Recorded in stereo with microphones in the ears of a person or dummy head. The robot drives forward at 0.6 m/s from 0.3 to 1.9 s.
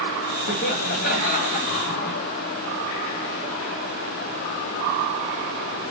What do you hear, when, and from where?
0.5 s laughter: 55° left (ahead or behind), 1.7 m; by 2.2 s 40° left (ahead or behind), 2.5 m